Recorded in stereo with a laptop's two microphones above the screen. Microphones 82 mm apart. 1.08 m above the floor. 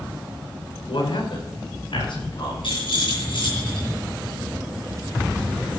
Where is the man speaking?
80° left, 4 m; by 2.5 s 75° left (ahead or behind), 4 m.